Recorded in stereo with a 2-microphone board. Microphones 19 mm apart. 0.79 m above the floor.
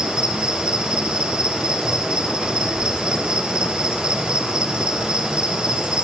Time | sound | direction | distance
0.0 | an insect | 70° right (ahead or behind) | 3 m